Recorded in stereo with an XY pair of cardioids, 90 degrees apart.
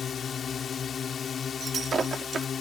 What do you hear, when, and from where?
0.0 s a drone: 55° left
1.6 s breaking glass: 45° right